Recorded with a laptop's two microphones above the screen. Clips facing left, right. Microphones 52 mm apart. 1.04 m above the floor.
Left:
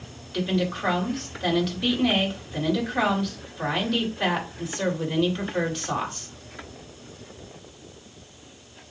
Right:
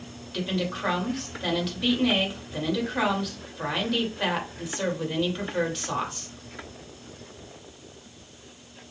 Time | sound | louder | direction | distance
0.3 | a woman speaking | left 3 dB | centre (ahead or behind) | 2.5 m